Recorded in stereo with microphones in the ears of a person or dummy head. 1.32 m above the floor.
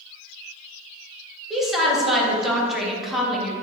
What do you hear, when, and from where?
1.5 s a woman speaking: 5° right (ahead or behind), 1.7 m